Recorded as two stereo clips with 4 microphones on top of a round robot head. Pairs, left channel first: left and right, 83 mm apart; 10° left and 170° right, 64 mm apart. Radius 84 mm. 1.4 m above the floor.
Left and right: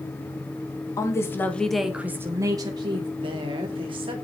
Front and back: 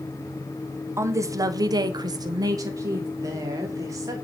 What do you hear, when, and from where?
1.0 s a woman speaking: 145° left, 1.8 m; by 3.1 s 125° right, 2 m
3.2 s a woman speaking: 125° right, 3 m